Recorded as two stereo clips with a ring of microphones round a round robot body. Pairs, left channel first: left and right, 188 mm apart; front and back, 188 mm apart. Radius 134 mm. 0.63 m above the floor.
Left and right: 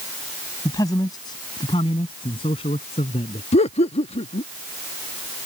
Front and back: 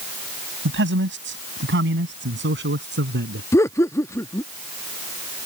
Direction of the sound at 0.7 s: 170° left.